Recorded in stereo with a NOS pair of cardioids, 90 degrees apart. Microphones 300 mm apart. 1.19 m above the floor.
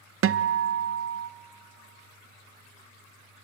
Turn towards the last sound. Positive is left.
turn(degrees=-45)